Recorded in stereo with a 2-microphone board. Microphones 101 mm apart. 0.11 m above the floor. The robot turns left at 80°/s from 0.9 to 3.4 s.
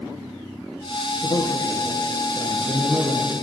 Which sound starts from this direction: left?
A man speaking, at 1.2 s.